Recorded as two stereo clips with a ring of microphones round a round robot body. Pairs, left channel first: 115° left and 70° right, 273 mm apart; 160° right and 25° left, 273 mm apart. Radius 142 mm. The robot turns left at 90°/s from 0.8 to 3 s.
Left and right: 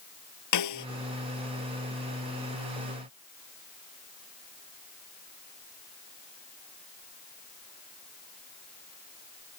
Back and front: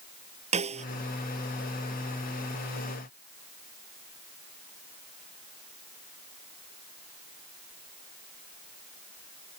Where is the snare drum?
90° left; by 0.9 s 85° left.